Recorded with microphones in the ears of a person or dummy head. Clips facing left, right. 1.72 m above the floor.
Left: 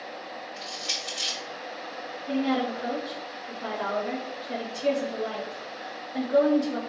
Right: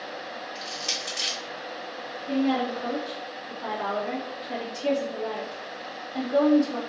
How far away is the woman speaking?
About 1.5 m.